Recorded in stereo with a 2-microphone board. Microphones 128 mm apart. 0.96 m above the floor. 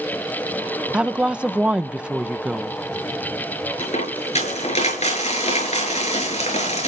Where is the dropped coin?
60° left (ahead or behind), 7.5 m.